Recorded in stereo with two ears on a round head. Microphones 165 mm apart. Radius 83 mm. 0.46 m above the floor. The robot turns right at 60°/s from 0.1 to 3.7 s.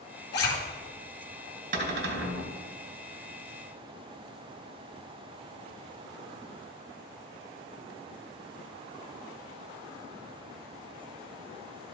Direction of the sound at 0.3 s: 65° left (ahead or behind).